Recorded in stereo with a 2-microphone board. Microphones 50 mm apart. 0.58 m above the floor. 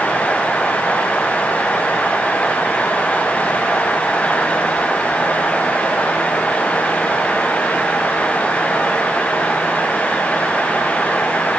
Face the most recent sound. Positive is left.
No sound to turn to.